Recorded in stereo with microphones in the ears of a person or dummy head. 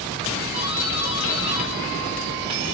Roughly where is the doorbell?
Right.